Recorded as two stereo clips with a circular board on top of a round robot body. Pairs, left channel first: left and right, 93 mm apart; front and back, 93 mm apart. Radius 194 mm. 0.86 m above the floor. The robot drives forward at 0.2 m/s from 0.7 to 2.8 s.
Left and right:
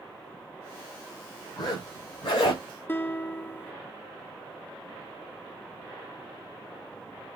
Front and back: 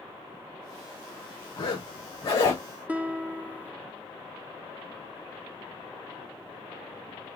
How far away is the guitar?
About 0.7 m.